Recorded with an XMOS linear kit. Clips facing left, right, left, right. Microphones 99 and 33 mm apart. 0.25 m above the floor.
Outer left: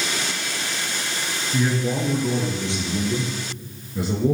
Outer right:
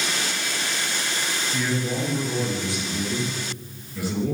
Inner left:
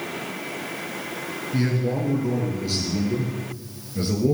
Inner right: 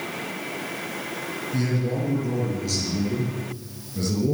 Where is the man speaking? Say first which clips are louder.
Outer left 4 dB, inner left 2 dB; 20° left (ahead or behind), 4.5 m; by 4.3 s 25° left (ahead or behind), 6 m.